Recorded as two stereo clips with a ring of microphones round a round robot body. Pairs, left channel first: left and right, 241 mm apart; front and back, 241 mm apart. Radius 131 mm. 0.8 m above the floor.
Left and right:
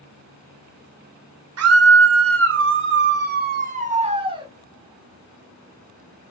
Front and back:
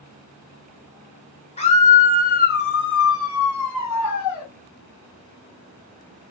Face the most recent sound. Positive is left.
turn(degrees=-20)